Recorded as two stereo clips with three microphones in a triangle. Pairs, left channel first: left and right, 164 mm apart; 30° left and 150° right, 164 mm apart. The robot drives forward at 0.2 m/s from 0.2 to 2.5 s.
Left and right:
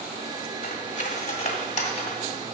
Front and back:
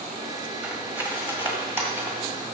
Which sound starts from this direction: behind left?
Cutlery clinking, at 0.6 s.